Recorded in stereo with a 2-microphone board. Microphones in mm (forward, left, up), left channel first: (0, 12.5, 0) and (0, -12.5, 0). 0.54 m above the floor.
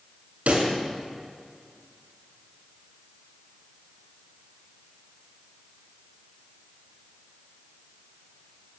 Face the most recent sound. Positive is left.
turn(degrees=-85)